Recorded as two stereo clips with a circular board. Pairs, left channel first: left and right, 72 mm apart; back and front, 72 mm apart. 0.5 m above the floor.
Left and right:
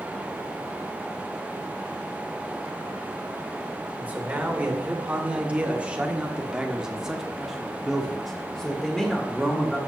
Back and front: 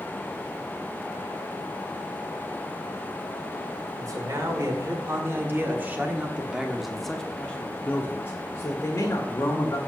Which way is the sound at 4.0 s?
25° right.